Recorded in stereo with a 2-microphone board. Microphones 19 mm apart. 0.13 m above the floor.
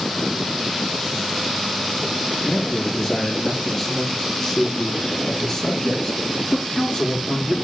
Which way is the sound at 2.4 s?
10° left (ahead or behind).